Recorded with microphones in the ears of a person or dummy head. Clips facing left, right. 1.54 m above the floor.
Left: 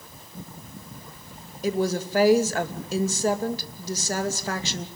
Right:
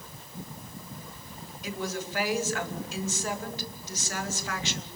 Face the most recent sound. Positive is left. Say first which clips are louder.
# left 10 dB
turn(degrees=35)  # may be behind; listen again after turning